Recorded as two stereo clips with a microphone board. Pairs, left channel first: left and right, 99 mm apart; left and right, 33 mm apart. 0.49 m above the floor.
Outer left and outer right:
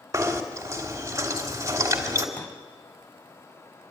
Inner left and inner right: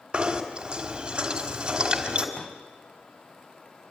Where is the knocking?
35° right (ahead or behind), 2.5 m.